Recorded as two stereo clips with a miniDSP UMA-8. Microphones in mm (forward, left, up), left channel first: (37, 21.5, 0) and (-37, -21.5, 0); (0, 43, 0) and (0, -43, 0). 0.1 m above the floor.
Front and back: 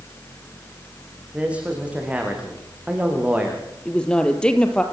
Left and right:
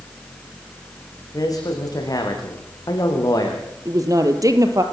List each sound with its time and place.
1.3 s a man speaking: 135° left, 6.5 m
3.9 s a woman speaking: 50° right, 2.5 m